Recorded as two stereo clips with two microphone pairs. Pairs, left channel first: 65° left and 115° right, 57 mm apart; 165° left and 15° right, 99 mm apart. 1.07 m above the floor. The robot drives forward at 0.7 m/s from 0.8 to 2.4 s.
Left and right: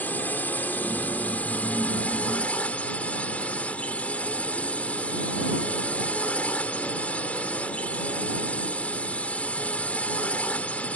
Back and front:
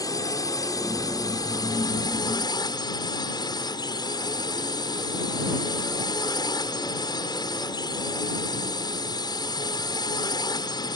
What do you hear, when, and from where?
0.0 s a drone: 115° left; by 11.0 s 125° left